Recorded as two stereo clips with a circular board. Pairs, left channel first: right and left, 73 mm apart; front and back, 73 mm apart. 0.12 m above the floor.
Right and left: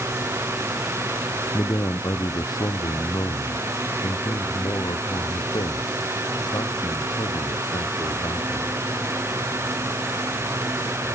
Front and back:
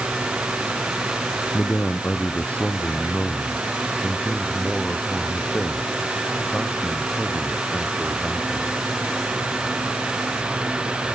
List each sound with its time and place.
1.5 s a man speaking: 55° right; by 8.8 s 90° right